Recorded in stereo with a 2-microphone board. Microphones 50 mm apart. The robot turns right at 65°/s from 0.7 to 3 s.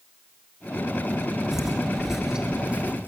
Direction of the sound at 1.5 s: 10° right (ahead or behind).